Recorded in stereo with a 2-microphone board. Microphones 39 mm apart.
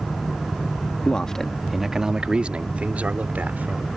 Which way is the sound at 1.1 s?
25° left (ahead or behind).